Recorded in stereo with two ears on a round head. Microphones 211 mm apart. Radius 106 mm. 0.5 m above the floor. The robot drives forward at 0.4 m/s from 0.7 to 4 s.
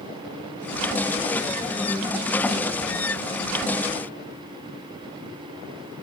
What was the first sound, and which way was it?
Only background noise.